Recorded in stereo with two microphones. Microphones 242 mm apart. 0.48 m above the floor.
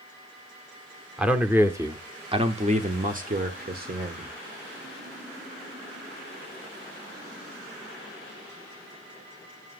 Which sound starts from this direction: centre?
A man speaking, at 1.2 s.